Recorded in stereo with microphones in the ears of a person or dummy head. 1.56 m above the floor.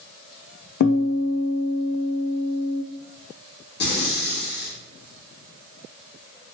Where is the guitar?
55° left (ahead or behind), 0.5 m.